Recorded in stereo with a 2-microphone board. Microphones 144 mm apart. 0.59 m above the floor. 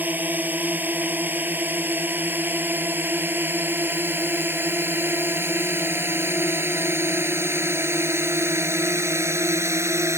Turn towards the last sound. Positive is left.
turn(degrees=-20)  # may be behind; listen again after turning